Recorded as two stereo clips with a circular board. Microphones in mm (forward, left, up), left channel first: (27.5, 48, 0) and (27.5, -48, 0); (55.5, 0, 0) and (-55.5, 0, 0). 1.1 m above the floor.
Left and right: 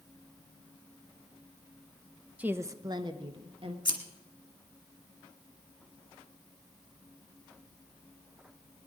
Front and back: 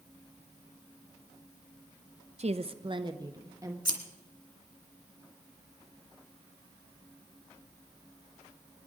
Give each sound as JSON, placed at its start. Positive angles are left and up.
{"t": 2.4, "sound": "a woman speaking", "azimuth_deg": -165, "distance_m": 0.6}
{"t": 3.9, "sound": "scissors", "azimuth_deg": 45, "distance_m": 2.0}